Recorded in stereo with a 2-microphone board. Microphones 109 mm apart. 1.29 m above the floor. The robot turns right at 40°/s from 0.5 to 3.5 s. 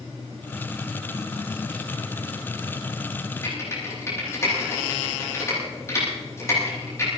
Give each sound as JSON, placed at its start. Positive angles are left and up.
{"t": 3.4, "sound": "typing on a keyboard", "side_deg": 30, "distance_m": 10.0}